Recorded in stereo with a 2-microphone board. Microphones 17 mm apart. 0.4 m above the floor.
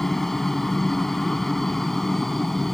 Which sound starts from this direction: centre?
A helicopter, at 0.0 s.